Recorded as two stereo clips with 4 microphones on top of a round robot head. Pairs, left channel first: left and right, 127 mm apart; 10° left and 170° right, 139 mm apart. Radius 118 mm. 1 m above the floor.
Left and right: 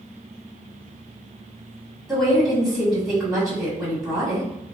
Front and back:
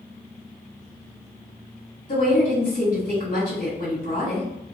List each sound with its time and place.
2.1 s a woman speaking: 5° right, 1.6 m